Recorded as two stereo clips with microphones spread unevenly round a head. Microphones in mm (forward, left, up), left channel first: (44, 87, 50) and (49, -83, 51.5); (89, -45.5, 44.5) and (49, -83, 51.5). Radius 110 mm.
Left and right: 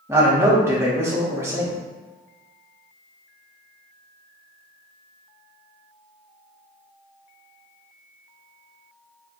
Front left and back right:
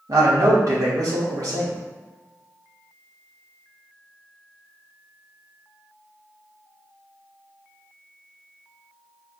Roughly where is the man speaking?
Behind.